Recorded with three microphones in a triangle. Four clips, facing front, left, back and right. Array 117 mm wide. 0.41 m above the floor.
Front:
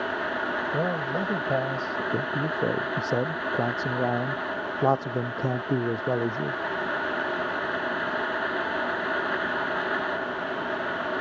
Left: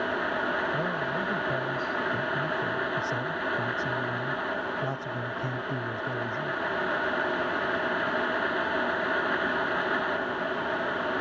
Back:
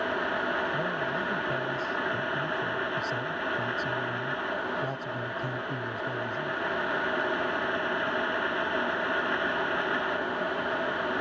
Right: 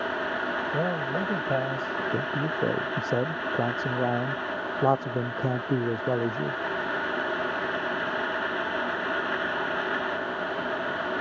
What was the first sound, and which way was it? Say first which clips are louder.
A man speaking: right 2 dB, front 3 dB; 40° right.